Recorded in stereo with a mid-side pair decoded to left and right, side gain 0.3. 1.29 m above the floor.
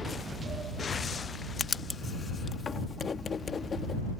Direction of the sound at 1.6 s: 55° left.